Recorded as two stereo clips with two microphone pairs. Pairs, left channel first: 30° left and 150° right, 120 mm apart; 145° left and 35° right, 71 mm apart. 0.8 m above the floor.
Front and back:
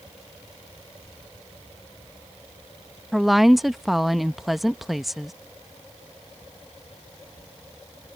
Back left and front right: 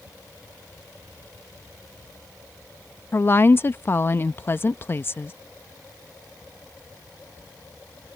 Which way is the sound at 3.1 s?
120° left.